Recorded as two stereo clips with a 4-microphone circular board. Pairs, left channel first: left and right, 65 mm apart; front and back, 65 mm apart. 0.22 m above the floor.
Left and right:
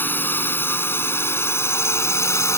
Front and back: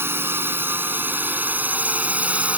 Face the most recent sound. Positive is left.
turn(degrees=120)